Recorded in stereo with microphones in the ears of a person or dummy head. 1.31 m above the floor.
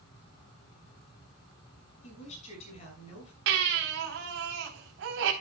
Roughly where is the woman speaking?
Left.